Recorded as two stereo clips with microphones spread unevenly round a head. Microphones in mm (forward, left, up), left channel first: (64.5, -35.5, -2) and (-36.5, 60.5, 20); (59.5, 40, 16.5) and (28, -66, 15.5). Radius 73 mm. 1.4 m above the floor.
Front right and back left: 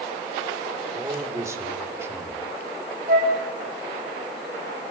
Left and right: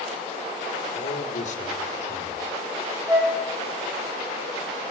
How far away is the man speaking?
About 5 m.